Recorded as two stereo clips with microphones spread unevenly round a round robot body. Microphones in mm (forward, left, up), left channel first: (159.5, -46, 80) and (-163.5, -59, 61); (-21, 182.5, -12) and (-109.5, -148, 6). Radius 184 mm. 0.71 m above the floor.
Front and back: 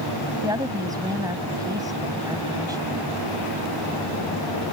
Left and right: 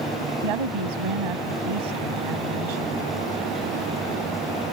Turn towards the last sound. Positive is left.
turn(degrees=-100)